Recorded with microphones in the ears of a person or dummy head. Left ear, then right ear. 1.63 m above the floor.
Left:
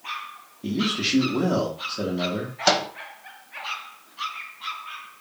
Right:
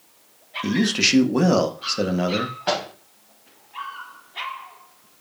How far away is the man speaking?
About 0.7 m.